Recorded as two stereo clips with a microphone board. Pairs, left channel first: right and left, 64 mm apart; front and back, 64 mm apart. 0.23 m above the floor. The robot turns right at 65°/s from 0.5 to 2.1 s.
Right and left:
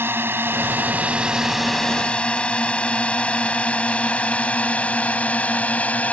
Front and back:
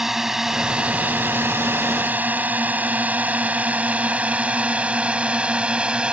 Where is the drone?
100° left; by 6.1 s 125° right.